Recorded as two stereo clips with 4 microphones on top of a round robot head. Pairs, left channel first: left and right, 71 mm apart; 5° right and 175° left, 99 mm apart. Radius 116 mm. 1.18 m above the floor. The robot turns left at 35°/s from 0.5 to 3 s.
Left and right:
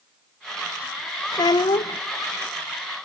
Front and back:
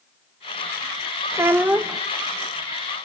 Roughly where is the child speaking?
Behind left.